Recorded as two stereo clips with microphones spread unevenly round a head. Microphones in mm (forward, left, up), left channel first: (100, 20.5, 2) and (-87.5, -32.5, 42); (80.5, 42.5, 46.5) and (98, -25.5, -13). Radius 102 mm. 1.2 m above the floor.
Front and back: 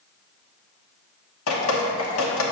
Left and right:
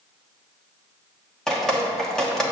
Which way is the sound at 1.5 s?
40° left.